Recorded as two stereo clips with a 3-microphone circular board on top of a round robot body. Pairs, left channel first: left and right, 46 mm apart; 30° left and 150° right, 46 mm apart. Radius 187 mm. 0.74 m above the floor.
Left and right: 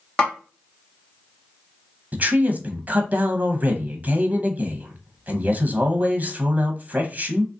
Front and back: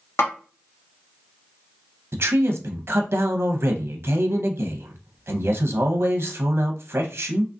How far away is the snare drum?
About 1.6 m.